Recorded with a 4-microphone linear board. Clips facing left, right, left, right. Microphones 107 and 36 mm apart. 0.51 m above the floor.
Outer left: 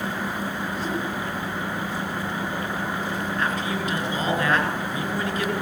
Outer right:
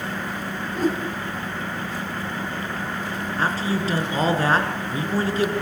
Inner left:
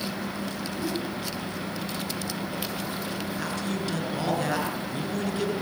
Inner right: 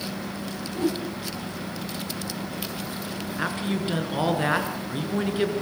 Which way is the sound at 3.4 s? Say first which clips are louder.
Outer right 5 dB, inner right 6 dB; 30° right (ahead or behind).